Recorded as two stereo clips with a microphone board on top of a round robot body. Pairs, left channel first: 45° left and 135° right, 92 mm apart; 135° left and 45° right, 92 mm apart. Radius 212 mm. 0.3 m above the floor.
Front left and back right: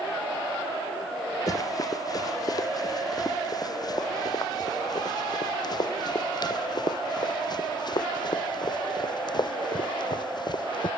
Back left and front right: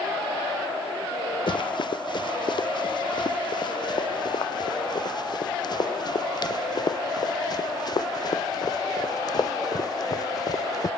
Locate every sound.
1.5 s running footsteps: 95° left; by 10.9 s 85° left